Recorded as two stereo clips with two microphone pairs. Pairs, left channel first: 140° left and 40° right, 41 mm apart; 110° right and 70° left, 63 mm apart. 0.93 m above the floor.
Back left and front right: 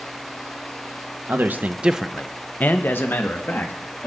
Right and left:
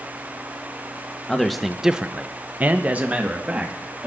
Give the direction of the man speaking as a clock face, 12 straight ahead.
1 o'clock.